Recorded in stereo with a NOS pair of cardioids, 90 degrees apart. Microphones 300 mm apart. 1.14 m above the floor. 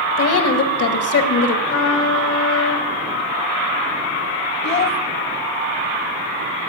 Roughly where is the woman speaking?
Ahead left.